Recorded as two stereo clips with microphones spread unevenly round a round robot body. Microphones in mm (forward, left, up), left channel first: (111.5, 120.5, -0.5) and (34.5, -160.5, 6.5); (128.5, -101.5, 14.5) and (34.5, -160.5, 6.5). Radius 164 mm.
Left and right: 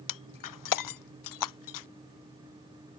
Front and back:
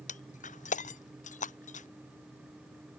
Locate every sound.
0.1 s breaking glass: 60° left